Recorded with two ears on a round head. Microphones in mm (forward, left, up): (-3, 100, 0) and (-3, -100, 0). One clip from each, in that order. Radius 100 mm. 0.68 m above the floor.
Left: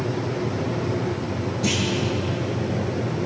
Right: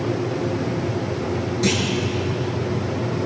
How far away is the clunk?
About 7 m.